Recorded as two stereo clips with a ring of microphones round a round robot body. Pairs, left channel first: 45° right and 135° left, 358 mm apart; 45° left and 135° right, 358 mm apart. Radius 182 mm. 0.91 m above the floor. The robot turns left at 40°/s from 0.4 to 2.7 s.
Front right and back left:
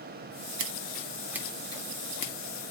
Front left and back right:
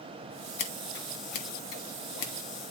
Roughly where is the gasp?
I don't hear a gasp.